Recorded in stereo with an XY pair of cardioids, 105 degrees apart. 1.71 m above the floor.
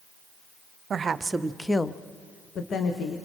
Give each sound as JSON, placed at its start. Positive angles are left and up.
{"t": 0.9, "sound": "a woman speaking", "azimuth_deg": -45, "distance_m": 1.0}